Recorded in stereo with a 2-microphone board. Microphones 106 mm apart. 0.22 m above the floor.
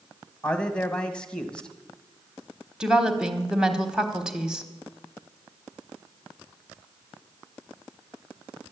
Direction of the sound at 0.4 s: 10° left (ahead or behind).